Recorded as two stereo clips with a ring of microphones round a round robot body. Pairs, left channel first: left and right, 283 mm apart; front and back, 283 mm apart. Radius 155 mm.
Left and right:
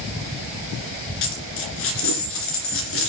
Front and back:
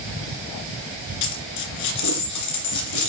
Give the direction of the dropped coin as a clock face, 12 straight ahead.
11 o'clock.